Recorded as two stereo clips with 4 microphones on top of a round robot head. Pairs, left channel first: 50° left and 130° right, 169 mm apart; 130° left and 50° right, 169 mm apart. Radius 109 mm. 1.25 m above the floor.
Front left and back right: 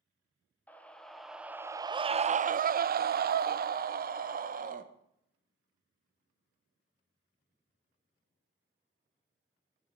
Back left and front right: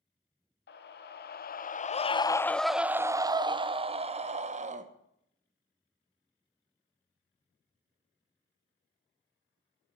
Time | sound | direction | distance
0.7 | a scream | 130° left | 1.0 m